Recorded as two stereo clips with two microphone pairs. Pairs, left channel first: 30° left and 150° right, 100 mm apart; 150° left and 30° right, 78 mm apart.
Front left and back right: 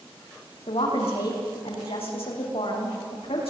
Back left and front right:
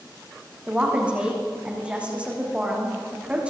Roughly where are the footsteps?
I don't hear footsteps.